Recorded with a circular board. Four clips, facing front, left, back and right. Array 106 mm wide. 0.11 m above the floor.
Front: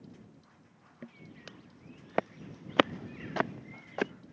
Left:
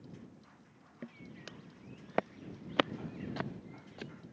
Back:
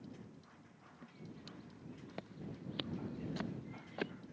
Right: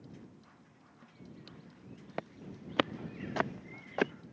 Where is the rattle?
I don't hear a rattle.